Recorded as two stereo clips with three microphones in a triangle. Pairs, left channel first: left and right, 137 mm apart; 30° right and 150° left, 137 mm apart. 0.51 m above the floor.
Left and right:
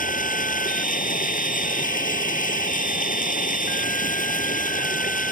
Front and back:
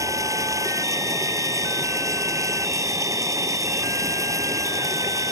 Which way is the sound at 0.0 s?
85° left.